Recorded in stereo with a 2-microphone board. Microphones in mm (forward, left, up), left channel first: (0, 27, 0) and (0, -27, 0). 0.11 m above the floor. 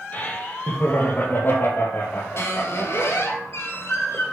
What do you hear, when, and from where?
0.1 s laughter: 30° left (ahead or behind), 3.5 m; by 3.3 s 50° left (ahead or behind), 5 m
2.4 s a squeak: 55° left (ahead or behind), 1.9 m